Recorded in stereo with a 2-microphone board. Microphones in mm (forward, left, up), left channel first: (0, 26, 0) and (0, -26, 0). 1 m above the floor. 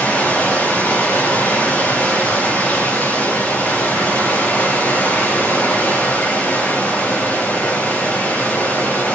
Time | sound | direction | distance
0.0 | running water | 30° left (ahead or behind) | 5.5 m